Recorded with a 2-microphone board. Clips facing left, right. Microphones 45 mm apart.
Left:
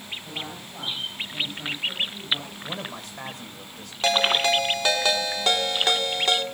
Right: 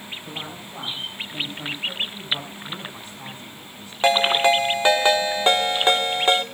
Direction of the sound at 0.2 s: 10° right (ahead or behind).